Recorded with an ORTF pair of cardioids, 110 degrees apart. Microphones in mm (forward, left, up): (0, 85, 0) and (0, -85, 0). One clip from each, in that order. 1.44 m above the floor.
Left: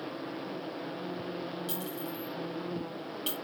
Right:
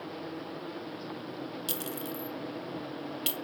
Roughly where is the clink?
Right.